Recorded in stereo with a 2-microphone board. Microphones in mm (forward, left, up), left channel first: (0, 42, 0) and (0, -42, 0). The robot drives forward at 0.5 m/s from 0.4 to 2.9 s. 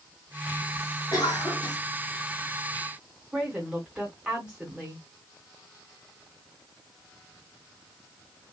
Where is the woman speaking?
15° right (ahead or behind), 1.4 m.